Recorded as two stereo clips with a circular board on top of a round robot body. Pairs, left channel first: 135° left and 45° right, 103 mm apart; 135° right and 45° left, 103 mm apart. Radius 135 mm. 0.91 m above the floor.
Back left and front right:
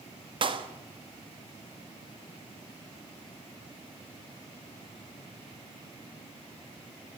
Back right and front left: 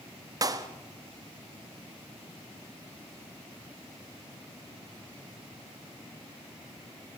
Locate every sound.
0.4 s a clap: 10° right, 1.5 m